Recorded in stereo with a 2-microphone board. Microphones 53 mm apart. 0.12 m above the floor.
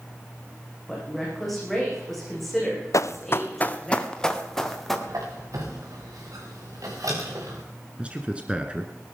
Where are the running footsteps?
75° left (ahead or behind), 1.0 m; by 5.0 s 5° left (ahead or behind), 3 m.